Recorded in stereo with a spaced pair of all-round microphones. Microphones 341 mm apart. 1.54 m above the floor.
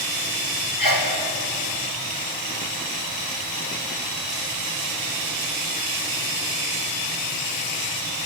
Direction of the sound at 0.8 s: 75° left (ahead or behind).